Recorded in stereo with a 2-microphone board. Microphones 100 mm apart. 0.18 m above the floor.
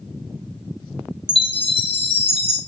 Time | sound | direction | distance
1.3 | a chime | 65° left (ahead or behind) | 0.7 m